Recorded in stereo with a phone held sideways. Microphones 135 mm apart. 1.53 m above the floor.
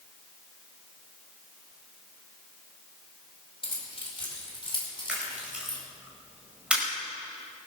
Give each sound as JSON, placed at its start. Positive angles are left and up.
{"t": 3.6, "sound": "keys jangling", "side_deg": 40, "distance_m": 4.0}
{"t": 5.1, "sound": "a camera shutter", "side_deg": -10, "distance_m": 5.0}